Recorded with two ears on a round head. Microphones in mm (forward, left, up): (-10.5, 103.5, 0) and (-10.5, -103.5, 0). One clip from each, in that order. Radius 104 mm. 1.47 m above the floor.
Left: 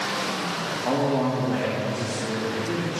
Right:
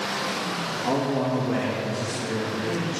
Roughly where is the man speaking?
Centre.